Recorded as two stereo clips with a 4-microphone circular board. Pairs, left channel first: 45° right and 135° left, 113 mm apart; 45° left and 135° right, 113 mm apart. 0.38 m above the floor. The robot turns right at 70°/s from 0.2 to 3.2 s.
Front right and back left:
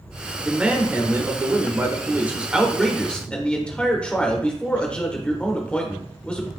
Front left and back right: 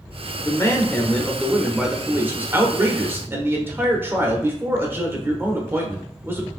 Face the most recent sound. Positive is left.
turn(degrees=-110)